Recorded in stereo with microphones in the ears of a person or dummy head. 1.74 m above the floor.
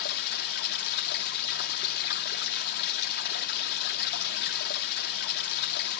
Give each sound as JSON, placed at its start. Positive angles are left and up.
{"t": 0.0, "sound": "running water", "side_deg": 55, "distance_m": 2.5}